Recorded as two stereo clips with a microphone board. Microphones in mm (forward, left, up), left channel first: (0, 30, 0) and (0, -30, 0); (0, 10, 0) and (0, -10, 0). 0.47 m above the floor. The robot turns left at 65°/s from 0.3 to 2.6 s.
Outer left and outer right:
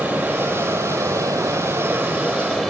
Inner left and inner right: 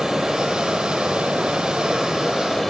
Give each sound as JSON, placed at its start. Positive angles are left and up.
{"t": 0.0, "sound": "running water", "azimuth_deg": -25, "distance_m": 8.0}